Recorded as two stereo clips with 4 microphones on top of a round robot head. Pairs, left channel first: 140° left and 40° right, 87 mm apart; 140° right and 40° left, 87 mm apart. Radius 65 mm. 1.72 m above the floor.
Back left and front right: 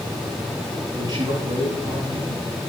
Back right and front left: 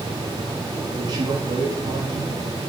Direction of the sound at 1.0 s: Straight ahead.